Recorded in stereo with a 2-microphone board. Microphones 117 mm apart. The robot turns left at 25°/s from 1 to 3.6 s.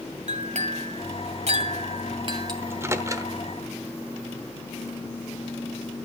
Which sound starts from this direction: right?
A clink, at 0.3 s.